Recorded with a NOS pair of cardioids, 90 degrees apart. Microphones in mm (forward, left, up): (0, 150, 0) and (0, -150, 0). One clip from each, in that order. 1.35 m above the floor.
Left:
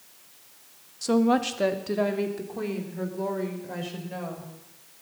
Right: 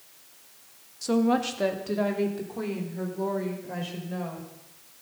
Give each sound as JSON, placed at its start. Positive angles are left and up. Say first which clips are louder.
{"t": 1.0, "sound": "a woman speaking", "louder": "left 2 dB", "azimuth_deg": 15, "distance_m": 1.6}